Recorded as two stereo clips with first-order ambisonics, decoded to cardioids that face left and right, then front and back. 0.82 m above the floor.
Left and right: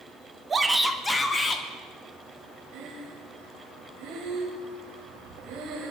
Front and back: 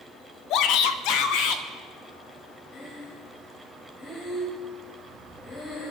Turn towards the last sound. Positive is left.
turn(degrees=-75)